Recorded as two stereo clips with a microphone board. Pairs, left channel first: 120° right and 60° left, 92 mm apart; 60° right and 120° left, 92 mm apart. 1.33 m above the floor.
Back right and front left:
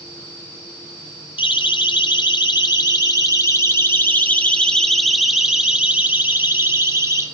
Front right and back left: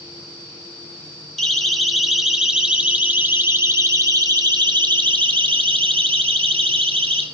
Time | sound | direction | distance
1.4 | a siren | 145° right | 4.5 m